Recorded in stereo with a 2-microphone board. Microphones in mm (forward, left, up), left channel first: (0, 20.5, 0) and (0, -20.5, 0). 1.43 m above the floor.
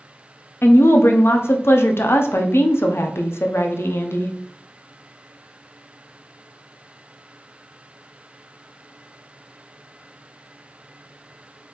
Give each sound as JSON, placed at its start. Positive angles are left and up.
{"t": 0.6, "sound": "a woman speaking", "side_deg": 80, "distance_m": 0.5}